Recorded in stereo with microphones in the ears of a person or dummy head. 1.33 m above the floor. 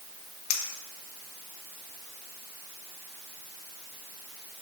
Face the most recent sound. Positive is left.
turn(degrees=50)  # may be behind; listen again after turning